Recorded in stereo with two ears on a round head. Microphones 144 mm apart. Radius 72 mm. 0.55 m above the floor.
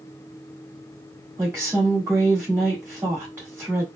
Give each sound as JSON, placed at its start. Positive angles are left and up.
{"t": 1.4, "sound": "a woman speaking", "side_deg": -20, "distance_m": 2.0}